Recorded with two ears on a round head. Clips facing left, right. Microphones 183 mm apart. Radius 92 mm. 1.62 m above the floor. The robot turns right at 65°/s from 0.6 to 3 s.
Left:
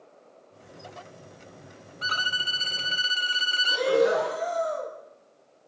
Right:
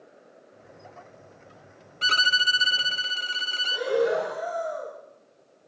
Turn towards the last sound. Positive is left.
turn(degrees=55)  # may be behind; listen again after turning